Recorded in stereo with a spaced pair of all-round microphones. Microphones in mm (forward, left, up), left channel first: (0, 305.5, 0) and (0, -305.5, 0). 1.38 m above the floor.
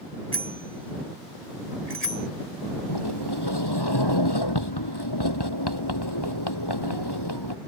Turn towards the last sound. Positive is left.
turn(degrees=40)  # may be behind; listen again after turning